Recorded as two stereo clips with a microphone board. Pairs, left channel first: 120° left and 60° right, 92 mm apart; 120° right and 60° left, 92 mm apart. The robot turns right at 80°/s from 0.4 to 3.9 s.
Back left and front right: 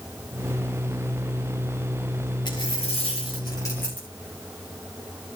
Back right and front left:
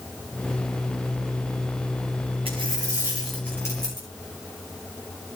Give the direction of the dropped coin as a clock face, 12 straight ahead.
9 o'clock.